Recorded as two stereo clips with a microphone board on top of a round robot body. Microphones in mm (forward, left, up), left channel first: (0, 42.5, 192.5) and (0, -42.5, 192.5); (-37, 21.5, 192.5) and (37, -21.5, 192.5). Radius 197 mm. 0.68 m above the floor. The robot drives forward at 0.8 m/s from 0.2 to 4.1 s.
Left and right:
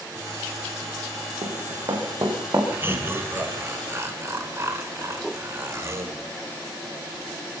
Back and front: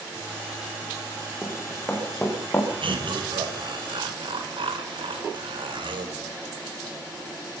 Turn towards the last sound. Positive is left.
turn(degrees=-35)